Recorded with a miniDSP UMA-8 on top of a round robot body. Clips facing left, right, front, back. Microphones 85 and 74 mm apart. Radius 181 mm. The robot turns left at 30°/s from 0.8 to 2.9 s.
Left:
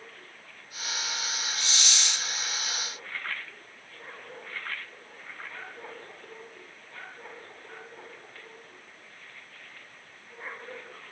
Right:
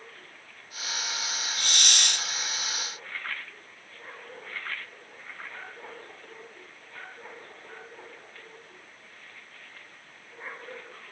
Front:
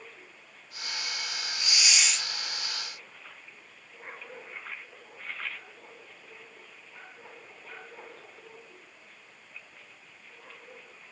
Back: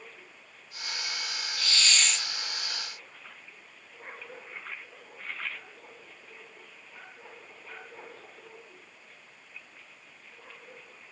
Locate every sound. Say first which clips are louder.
1.6 s a hiss: right 5 dB, back 1 dB; 70° right, 0.7 m; by 2.3 s 90° right, 0.7 m